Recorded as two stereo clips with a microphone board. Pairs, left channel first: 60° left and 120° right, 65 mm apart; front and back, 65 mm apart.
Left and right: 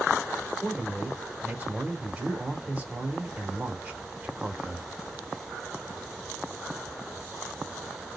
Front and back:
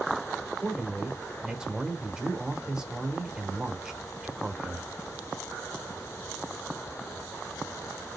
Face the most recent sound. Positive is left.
turn(degrees=-115)